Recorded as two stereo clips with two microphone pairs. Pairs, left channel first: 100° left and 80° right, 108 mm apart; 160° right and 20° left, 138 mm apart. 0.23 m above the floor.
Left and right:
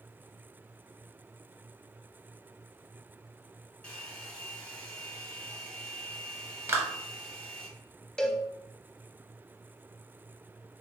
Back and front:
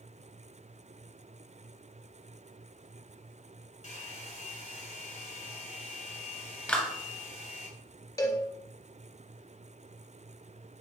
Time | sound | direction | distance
3.8 | a hair dryer | 175° left | 1.3 m
6.7 | a clap | 95° right | 0.8 m
8.2 | a cowbell | 170° left | 0.5 m